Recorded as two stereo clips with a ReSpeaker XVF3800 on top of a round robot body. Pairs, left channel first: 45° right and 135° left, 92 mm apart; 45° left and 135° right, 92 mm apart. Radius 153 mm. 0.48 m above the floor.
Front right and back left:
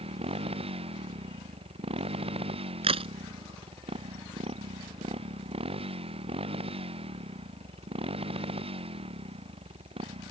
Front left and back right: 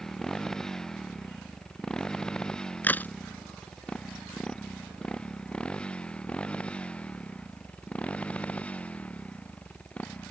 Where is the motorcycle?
130° left; by 10.3 s 120° left.